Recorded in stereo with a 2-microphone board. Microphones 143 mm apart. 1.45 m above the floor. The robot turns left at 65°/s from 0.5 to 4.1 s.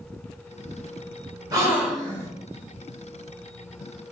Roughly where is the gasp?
Behind right.